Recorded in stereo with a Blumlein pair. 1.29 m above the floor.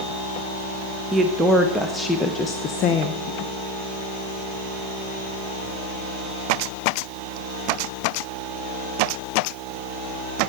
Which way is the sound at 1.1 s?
15° right.